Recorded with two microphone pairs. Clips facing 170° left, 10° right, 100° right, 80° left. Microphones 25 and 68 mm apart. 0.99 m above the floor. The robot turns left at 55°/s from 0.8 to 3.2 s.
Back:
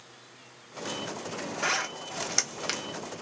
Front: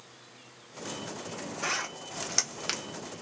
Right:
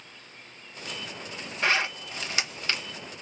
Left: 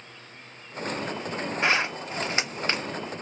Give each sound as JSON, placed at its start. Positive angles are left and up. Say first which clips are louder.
{"t": 1.6, "sound": "a zipper", "louder": "back 3 dB, even", "azimuth_deg": 135, "distance_m": 0.8}